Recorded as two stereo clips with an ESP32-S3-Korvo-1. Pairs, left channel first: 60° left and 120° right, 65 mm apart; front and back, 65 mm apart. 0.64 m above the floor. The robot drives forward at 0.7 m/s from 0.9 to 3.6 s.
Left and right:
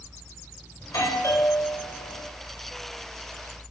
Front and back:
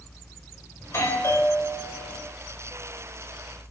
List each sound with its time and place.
0.8 s a doorbell: 40° left, 4 m; by 2.2 s 50° left, 3 m